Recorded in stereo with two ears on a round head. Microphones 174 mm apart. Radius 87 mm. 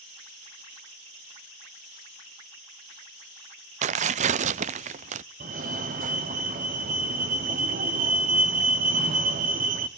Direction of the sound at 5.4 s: 40° right (ahead or behind).